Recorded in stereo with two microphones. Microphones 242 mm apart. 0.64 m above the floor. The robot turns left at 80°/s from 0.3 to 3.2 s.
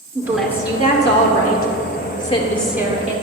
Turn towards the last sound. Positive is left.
turn(degrees=-45)